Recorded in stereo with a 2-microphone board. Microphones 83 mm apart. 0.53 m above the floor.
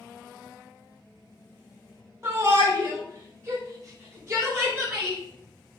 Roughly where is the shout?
Right.